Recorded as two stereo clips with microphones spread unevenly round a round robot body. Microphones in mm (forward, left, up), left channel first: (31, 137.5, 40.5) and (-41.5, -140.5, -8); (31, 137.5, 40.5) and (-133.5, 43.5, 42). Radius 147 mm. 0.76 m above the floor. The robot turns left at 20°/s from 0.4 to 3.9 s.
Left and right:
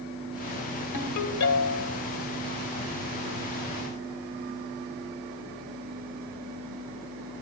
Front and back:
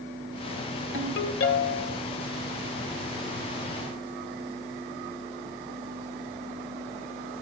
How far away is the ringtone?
About 1.7 m.